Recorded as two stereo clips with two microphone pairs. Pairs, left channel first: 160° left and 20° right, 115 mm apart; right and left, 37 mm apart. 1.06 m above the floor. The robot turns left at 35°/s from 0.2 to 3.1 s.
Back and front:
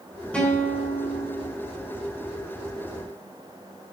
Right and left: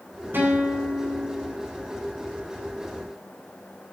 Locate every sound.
0.3 s a guitar: 80° left, 3 m; by 1.5 s 35° left, 3 m